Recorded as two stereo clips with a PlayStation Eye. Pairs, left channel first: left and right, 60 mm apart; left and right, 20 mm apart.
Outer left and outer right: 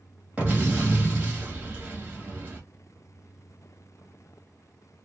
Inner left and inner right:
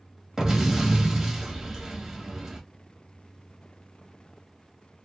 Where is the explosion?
20° right (ahead or behind), 1.0 m.